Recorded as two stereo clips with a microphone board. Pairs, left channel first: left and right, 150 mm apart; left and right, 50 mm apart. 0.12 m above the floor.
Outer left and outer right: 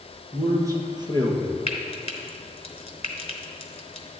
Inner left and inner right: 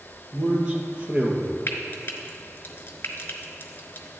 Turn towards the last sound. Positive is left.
turn(degrees=40)  # may be behind; listen again after turning